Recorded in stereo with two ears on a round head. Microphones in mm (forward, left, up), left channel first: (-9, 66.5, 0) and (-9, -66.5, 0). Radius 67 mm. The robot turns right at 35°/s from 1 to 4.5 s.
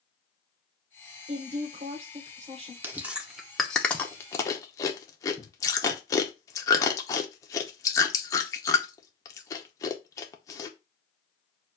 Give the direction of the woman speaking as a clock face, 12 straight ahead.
3 o'clock.